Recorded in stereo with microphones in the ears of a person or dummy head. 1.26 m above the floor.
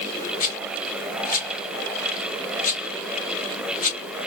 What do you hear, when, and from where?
0.4 s a rattle: 45° left (ahead or behind), 1.2 m